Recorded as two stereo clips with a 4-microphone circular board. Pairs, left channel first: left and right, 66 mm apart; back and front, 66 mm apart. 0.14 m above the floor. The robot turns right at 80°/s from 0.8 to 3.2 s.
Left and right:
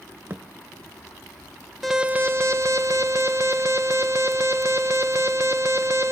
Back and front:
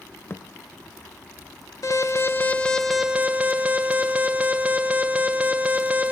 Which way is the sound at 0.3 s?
140° right.